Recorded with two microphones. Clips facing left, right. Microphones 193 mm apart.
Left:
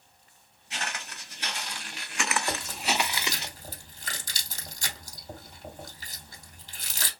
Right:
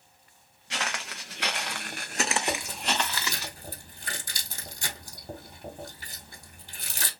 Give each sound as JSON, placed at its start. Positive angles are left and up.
{"t": 0.7, "sound": "footsteps", "side_deg": -85, "distance_m": 1.1}
{"t": 2.5, "sound": "chewing", "side_deg": -55, "distance_m": 1.7}